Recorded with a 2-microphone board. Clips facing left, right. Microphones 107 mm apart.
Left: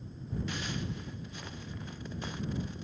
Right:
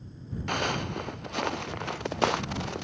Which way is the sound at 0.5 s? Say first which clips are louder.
Right 13 dB; 65° right (ahead or behind).